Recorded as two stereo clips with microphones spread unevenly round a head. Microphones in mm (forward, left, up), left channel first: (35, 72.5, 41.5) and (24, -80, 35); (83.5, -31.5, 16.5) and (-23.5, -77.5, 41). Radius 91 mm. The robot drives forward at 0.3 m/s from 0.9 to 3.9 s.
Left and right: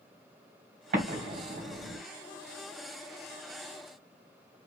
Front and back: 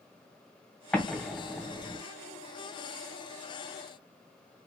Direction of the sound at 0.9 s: 65° right.